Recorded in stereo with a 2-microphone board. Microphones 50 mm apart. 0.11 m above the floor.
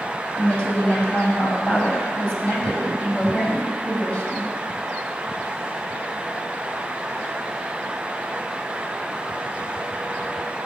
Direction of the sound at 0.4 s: 40° left (ahead or behind).